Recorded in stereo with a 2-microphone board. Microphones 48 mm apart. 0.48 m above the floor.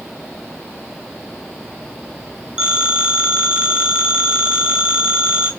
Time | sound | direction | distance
2.6 | a phone ringing | 20° right (ahead or behind) | 3 m